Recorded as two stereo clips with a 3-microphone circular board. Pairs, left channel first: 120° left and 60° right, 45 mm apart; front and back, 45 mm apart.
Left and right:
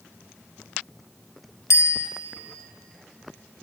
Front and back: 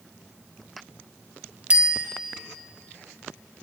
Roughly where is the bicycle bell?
Behind left.